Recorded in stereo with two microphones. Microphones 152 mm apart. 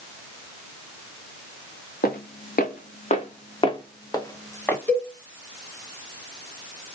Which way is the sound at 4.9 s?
10° left (ahead or behind).